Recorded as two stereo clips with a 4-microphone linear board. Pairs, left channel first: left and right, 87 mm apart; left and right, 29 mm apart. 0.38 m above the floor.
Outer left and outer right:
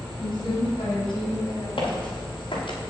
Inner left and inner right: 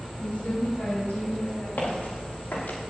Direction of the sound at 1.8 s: 75° left (ahead or behind).